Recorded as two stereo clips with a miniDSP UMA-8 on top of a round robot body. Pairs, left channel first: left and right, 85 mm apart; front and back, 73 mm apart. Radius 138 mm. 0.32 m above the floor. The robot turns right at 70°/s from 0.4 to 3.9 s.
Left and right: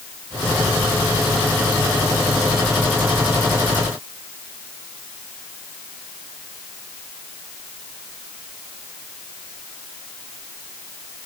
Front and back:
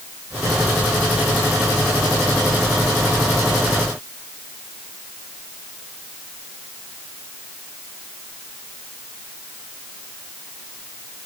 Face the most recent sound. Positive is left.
No sound to turn to.